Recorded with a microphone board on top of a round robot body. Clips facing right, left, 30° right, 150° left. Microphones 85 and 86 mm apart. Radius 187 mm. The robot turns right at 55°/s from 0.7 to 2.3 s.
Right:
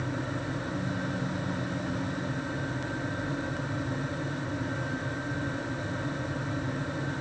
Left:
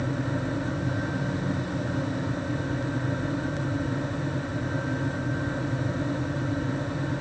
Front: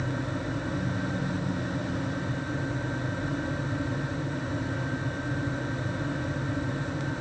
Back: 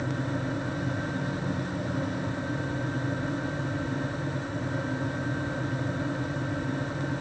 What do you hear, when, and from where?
Only background noise.